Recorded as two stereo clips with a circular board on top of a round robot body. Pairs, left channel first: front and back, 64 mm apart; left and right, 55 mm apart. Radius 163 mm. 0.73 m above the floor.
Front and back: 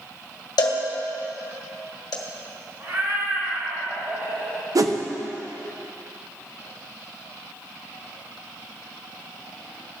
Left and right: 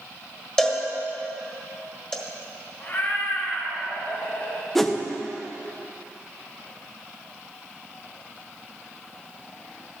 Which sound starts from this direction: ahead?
A cowbell, at 0.6 s.